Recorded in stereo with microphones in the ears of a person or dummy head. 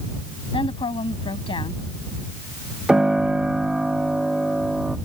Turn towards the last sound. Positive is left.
turn(degrees=-5)  # may be behind; listen again after turning